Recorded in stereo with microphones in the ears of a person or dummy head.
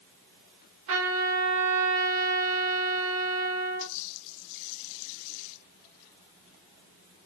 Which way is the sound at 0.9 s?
75° right (ahead or behind).